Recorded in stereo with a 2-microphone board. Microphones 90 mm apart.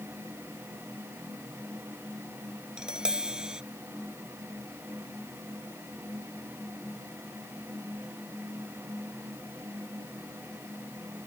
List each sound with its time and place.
2.8 s tapping: 10° right (ahead or behind)